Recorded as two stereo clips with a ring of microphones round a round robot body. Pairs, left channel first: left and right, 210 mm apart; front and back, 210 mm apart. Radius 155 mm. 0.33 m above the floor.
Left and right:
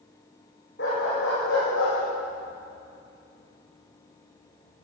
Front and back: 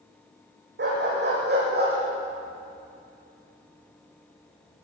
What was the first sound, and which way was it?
A dog barking, 145° left.